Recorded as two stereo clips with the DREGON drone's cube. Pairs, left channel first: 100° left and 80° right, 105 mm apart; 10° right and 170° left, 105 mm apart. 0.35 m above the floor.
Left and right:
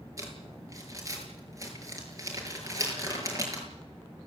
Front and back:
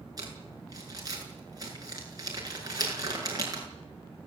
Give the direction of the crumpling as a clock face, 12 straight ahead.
5 o'clock.